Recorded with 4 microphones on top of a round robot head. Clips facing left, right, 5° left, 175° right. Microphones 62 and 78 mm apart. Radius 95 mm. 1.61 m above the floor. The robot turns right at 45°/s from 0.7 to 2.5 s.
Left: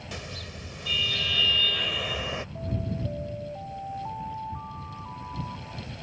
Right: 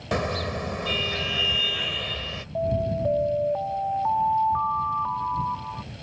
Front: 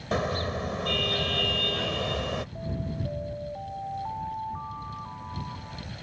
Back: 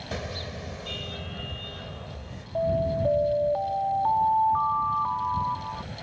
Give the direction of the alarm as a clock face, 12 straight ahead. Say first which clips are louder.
Right 9 dB, back 10 dB; 4 o'clock.